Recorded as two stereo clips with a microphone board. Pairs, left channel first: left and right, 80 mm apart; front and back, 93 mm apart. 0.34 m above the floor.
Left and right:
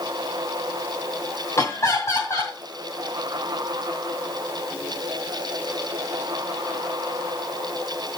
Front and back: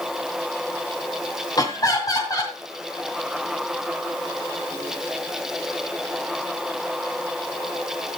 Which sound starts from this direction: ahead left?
Laughter, at 1.6 s.